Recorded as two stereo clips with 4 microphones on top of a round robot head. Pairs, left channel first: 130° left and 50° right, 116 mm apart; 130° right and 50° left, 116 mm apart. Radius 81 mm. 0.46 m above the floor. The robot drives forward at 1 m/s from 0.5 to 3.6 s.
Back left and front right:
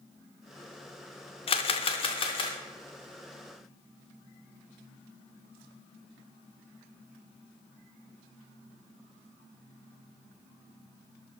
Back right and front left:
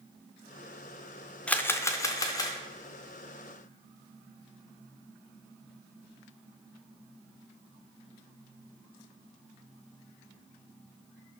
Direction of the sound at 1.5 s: 150° left.